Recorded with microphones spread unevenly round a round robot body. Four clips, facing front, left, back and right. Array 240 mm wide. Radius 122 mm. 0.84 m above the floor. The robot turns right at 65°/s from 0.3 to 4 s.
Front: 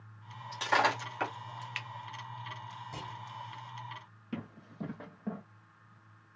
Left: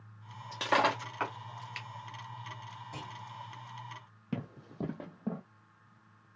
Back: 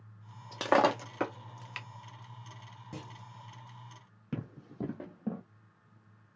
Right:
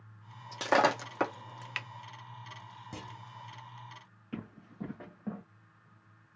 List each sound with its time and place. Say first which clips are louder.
0.5 s breaking glass: right 2 dB, back 3 dB; 175° right, 0.5 m; by 1.9 s 90° right, 0.5 m
2.9 s a clunk: even, even; 135° right, 1.7 m; by 3.2 s 120° right, 1.7 m
4.3 s running footsteps: left 4 dB, back 2 dB; 130° left, 1.7 m; by 5.4 s 155° left, 1.0 m